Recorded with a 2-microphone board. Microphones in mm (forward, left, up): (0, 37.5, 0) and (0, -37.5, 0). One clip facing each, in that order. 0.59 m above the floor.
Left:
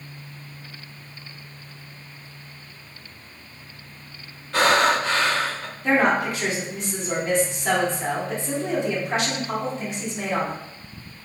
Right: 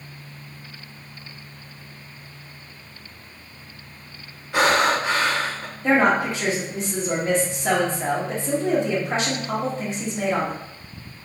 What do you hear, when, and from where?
4.5 s breathing: 15° right (ahead or behind), 0.6 m
5.8 s a woman speaking: 30° right (ahead or behind), 1.5 m